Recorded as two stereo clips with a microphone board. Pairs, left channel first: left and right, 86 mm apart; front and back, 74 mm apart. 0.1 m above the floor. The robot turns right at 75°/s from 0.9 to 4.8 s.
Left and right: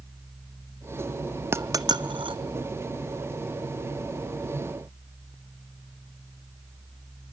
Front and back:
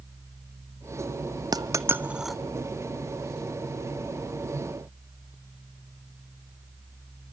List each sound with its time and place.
1.5 s a dropped coin: 150° right, 0.5 m; by 2.4 s 85° right, 0.5 m